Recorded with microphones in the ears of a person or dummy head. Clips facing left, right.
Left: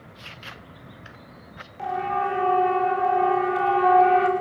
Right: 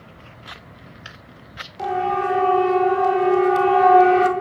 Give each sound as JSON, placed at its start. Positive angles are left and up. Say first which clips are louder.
{"t": 1.8, "sound": "a siren", "louder": "right 4 dB", "side_deg": -55, "distance_m": 6.5}